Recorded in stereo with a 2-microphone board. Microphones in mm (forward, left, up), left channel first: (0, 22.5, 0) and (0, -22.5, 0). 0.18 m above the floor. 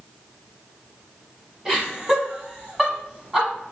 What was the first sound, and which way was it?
Laughter, 10° right (ahead or behind).